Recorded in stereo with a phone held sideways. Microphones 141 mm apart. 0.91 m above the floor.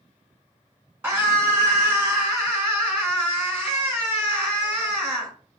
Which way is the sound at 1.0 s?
15° right (ahead or behind).